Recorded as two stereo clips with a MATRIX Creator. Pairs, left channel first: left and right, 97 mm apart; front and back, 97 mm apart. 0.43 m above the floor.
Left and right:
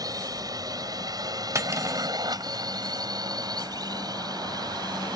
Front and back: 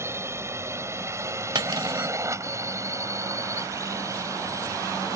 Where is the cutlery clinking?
145° right.